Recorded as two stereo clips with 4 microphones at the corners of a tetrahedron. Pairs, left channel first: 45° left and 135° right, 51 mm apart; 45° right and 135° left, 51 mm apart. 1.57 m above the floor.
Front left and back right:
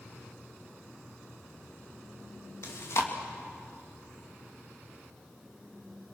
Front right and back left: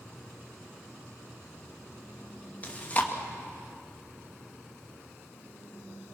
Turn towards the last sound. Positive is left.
turn(degrees=15)